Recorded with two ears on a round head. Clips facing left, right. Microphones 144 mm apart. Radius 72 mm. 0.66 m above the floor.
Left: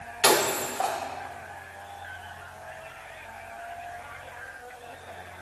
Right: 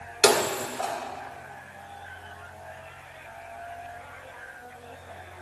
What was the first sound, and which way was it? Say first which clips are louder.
Breaking glass: right 1 dB; 65° right (ahead or behind).